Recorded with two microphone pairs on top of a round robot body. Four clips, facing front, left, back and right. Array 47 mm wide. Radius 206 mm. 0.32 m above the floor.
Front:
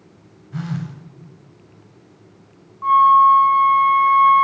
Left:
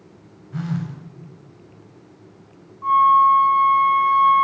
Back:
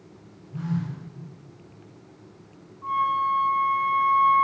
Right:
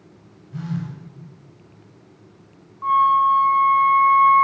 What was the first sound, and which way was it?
A phone buzzing, 30° left.